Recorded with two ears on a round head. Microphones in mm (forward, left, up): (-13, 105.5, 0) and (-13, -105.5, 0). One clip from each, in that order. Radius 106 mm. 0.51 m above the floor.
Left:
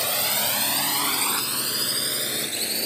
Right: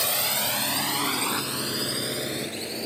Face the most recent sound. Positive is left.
turn(degrees=45)  # may be behind; listen again after turning